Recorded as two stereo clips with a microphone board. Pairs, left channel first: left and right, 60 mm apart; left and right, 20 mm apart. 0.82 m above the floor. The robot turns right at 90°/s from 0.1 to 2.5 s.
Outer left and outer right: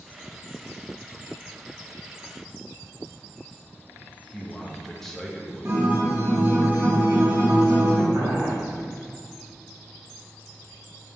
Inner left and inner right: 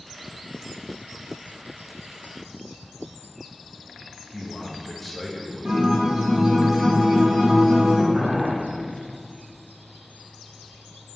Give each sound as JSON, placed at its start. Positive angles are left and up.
{"t": 4.3, "sound": "a man speaking", "side_deg": 5, "distance_m": 1.1}
{"t": 5.7, "sound": "a guitar", "side_deg": -35, "distance_m": 2.5}
{"t": 8.1, "sound": "boiling", "side_deg": -55, "distance_m": 3.0}